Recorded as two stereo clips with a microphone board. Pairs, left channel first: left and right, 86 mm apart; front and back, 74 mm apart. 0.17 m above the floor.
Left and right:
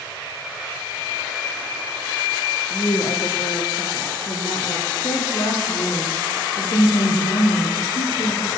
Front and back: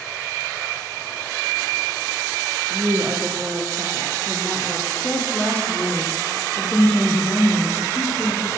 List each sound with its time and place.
2.7 s a woman speaking: 120° left, 6 m; by 4.9 s 105° left, 7.5 m
5.0 s a woman speaking: 70° left, 7 m